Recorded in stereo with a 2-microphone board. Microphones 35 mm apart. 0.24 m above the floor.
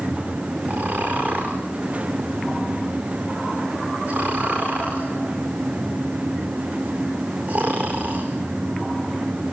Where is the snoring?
40° right (ahead or behind), 4.5 m.